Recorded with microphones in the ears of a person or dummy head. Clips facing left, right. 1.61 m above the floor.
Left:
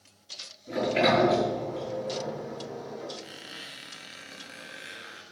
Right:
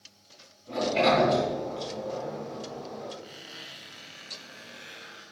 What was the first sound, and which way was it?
A sliding door, 20° left (ahead or behind).